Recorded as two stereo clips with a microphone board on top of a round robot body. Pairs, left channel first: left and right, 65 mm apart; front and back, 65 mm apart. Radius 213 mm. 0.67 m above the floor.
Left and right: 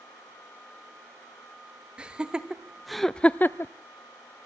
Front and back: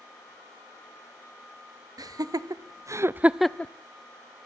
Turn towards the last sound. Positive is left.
turn(degrees=55)